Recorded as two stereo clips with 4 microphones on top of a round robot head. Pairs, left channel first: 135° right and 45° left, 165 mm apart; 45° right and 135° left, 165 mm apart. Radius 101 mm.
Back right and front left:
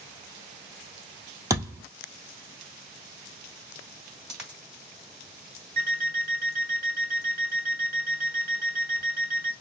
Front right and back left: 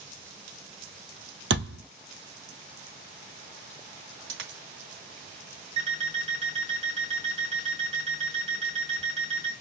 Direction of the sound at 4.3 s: 130° left.